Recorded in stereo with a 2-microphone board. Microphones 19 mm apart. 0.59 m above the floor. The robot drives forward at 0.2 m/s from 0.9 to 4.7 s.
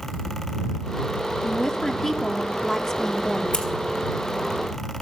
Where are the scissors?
60° left (ahead or behind), 4 m.